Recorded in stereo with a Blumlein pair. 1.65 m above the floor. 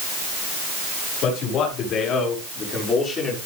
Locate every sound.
1.2 s a man speaking: 35° left, 6.5 m; by 3.4 s 10° left, 5.5 m